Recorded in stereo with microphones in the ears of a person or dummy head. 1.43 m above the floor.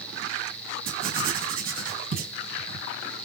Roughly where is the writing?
Right.